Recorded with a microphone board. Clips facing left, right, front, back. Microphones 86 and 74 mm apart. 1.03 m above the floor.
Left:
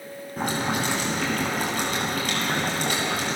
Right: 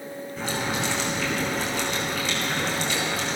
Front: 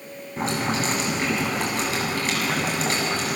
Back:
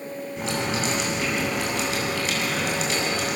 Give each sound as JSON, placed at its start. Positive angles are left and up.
{"t": 0.4, "sound": "boiling", "azimuth_deg": 50, "distance_m": 8.0}